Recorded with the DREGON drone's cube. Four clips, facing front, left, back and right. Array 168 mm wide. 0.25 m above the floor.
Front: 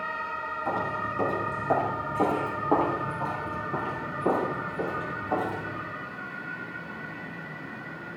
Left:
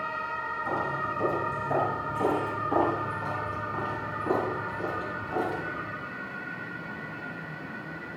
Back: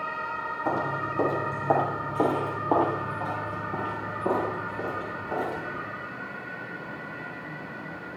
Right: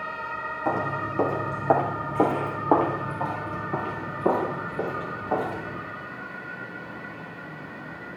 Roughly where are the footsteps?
Behind right.